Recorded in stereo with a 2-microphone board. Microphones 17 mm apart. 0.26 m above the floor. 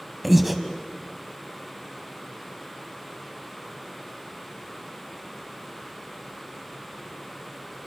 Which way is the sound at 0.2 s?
10° right (ahead or behind).